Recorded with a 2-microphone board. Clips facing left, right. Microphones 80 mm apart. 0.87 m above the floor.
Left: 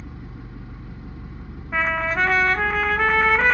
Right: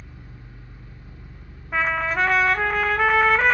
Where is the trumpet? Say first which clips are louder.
Even; centre (ahead or behind), 0.7 m.